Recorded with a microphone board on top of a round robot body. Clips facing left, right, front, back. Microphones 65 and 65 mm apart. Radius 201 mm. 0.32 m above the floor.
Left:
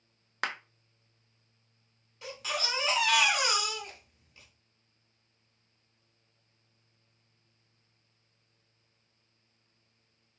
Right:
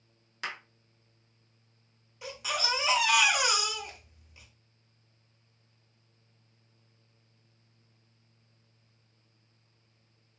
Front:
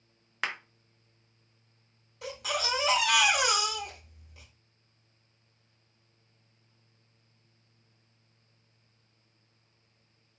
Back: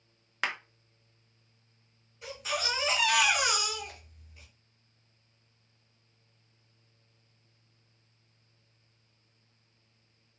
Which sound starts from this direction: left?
A clap, at 0.4 s.